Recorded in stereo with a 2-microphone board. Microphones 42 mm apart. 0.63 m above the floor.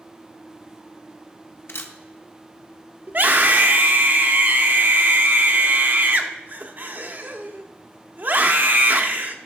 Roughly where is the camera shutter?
Left.